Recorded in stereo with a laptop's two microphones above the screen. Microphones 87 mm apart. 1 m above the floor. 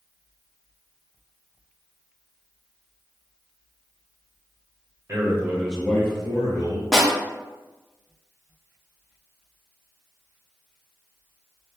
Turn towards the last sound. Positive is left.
turn(degrees=0)  # may be behind; listen again after turning